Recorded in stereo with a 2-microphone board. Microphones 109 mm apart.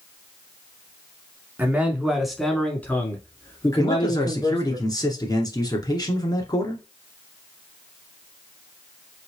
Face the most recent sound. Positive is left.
turn(degrees=35)  # may be behind; listen again after turning